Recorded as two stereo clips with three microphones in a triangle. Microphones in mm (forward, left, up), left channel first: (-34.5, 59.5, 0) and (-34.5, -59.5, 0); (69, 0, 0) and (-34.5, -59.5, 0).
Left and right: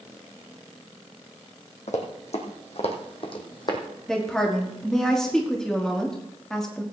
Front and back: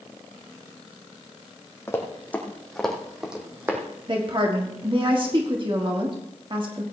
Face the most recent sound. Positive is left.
turn(degrees=175)